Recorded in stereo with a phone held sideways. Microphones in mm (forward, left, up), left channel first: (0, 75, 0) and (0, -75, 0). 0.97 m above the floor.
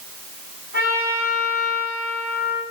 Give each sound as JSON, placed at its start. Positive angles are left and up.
{"t": 0.7, "sound": "a trumpet", "side_deg": 70, "distance_m": 9.5}